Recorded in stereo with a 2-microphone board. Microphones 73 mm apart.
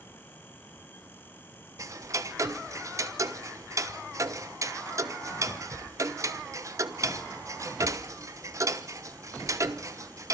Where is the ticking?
50° right (ahead or behind), 1.0 m.